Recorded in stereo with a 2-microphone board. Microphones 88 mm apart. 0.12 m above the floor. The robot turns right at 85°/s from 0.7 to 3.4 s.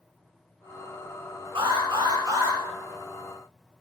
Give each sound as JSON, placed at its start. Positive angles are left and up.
{"t": 1.6, "sound": "an alarm", "azimuth_deg": -105, "distance_m": 7.5}